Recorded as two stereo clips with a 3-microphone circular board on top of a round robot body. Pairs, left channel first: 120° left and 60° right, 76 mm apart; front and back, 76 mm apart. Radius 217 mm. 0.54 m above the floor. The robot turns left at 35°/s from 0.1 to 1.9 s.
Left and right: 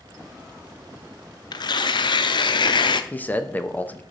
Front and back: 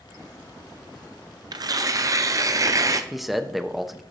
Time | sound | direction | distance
1.5 | tearing paper | 150° left | 0.5 m
3.1 | a man speaking | 95° left | 1.1 m